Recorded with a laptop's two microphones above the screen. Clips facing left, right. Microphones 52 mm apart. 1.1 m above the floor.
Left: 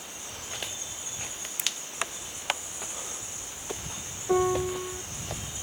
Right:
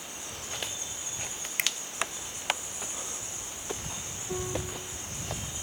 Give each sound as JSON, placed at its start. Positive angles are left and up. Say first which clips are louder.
{"t": 1.6, "sound": "a finger snap", "louder": "right 4 dB", "side_deg": -65}
{"t": 4.3, "sound": "a piano", "louder": "left 10 dB", "side_deg": 60}